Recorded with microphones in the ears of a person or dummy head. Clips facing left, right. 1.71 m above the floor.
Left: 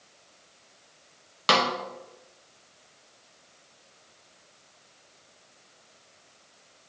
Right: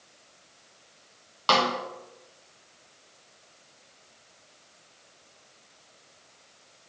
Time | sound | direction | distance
1.5 | a snare drum | 25° left (ahead or behind) | 1.1 m